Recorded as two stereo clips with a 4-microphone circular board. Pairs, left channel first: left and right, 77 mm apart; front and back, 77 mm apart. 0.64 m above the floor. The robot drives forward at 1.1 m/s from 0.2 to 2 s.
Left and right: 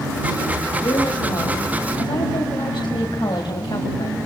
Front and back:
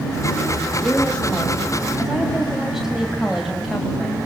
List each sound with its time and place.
0.8 s a woman speaking: 70° left, 3.5 m; by 4.2 s 95° left, 3.5 m